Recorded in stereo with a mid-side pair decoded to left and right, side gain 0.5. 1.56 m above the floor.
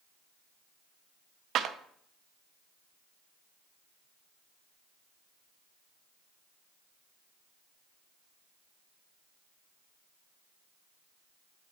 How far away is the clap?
About 0.6 m.